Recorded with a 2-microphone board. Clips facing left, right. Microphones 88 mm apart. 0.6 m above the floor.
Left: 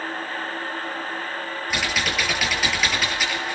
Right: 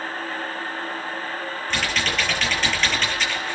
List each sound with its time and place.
1.7 s typing on a keyboard: 5° left (ahead or behind), 8 m